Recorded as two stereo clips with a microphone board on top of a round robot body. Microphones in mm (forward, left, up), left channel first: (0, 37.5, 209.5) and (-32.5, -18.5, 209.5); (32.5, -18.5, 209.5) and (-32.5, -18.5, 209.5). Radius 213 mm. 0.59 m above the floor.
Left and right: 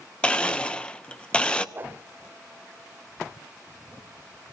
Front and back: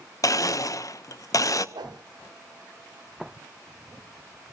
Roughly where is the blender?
Ahead.